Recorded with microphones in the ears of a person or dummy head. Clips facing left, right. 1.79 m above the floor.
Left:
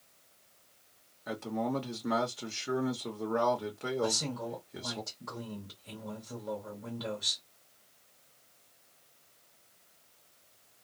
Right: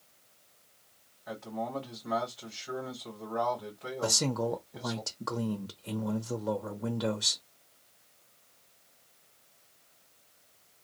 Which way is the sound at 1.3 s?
55° left (ahead or behind).